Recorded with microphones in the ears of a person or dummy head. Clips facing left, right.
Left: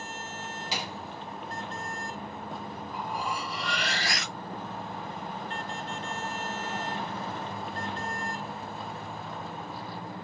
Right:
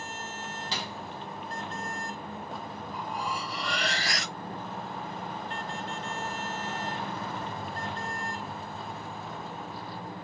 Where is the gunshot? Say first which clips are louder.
Left 2 dB; 10° left (ahead or behind), 0.8 m.